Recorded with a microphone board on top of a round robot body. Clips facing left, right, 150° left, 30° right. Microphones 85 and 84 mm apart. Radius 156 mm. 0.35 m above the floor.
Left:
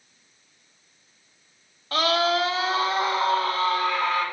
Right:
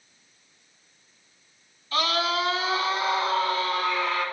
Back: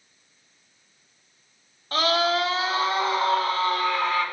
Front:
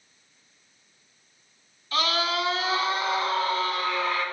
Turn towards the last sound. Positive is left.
turn(degrees=120)